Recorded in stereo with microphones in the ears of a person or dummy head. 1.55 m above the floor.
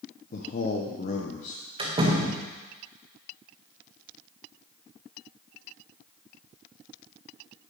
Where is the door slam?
25° right (ahead or behind), 1.4 m.